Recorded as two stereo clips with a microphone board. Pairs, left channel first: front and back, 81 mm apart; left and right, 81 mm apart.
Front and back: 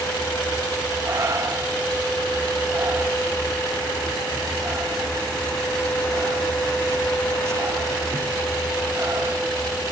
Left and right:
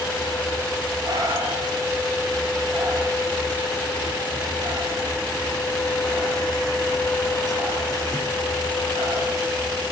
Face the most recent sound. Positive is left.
turn(degrees=-125)